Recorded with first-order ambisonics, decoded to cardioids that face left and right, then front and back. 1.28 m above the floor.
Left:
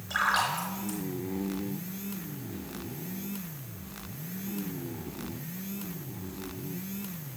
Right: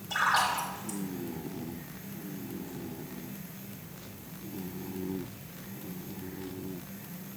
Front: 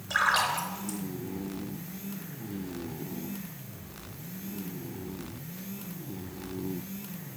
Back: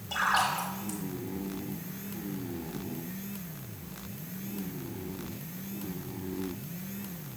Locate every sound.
0.1 s a splash: 30° left, 4 m